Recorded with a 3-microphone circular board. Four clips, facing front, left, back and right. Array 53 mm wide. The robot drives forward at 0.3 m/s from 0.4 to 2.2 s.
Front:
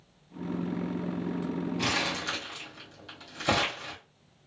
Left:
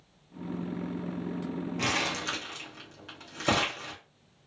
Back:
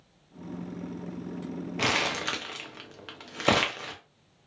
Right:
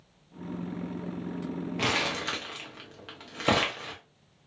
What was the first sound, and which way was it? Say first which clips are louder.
Crumpling: right 2 dB, back 6 dB; 160° right.